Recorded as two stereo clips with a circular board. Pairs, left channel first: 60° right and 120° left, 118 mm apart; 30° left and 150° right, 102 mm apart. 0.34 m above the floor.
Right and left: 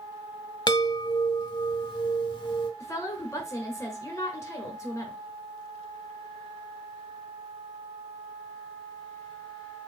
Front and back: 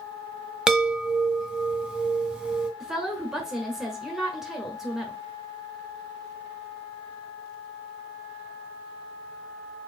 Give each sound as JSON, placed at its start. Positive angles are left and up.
{"t": 0.7, "sound": "a chime", "azimuth_deg": -70, "distance_m": 0.9}
{"t": 2.8, "sound": "a woman speaking", "azimuth_deg": -70, "distance_m": 1.3}